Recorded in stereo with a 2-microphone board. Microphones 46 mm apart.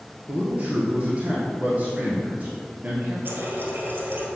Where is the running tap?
55° right (ahead or behind), 1.5 m.